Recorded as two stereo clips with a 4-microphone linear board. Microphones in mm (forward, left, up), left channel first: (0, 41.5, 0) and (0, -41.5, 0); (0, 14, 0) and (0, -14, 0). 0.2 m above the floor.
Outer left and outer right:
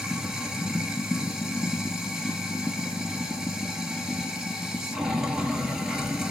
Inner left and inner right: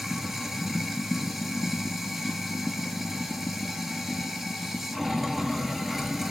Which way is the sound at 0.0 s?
5° right (ahead or behind).